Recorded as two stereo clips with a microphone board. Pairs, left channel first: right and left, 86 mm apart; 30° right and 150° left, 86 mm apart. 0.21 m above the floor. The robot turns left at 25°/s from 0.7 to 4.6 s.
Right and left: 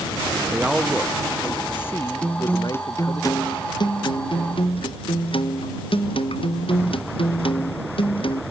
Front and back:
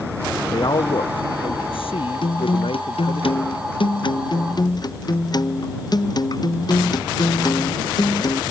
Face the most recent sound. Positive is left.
turn(degrees=-70)